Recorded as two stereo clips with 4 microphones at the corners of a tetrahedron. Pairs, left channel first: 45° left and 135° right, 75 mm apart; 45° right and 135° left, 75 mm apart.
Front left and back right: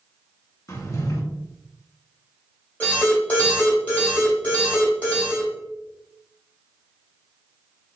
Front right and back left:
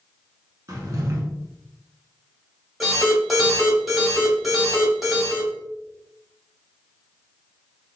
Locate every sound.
0.7 s a drawer: 90° left, 0.7 m
2.8 s an alarm: 45° left, 1.7 m